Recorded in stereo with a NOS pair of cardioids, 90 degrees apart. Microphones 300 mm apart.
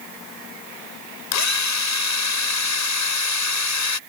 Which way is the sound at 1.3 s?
70° left.